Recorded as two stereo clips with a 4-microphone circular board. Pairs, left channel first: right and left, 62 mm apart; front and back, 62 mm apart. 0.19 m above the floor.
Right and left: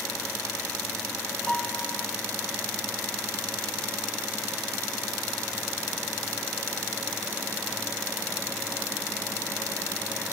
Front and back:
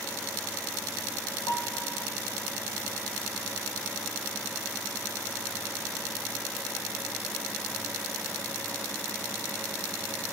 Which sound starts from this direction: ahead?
A piano, at 1.5 s.